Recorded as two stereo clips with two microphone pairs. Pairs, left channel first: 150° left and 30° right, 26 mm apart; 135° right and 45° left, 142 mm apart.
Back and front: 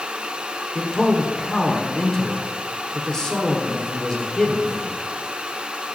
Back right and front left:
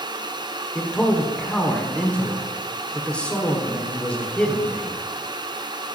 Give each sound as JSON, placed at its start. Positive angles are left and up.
{"t": 0.8, "sound": "a man speaking", "azimuth_deg": 165, "distance_m": 1.0}